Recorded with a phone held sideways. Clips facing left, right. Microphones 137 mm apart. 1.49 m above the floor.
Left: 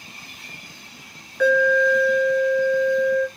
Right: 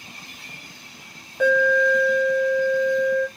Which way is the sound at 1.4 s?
25° right (ahead or behind).